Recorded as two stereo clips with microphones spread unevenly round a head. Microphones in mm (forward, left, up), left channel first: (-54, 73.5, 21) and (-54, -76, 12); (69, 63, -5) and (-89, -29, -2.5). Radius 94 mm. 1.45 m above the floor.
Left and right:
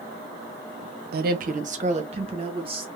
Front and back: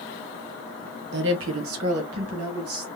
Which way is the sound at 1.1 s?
110° right.